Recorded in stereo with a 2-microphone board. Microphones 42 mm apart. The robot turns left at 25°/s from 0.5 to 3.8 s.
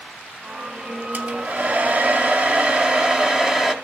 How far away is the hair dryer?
About 1.2 m.